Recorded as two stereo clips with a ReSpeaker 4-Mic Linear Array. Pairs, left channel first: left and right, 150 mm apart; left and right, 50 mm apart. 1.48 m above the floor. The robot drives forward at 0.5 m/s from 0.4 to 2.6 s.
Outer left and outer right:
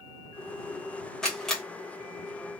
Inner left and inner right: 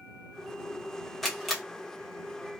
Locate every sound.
1.2 s a camera shutter: 5° left (ahead or behind), 1.4 m